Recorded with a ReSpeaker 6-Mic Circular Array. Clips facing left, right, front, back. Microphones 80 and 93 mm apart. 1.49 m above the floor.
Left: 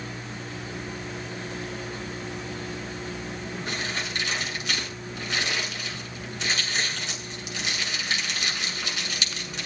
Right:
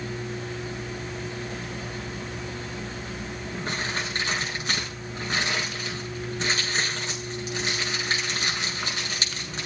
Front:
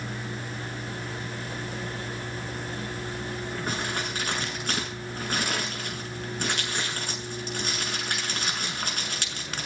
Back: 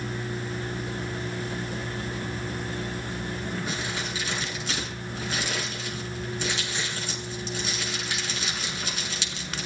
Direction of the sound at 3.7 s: 40° right.